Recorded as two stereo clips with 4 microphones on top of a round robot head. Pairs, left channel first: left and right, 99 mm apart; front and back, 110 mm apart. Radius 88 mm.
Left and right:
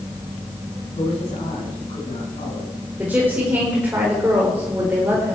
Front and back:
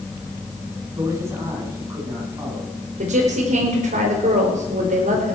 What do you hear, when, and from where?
1.0 s a man speaking: 120° left, 9 m; by 2.8 s 115° left, 8.5 m
3.0 s a woman speaking: 170° right, 3.5 m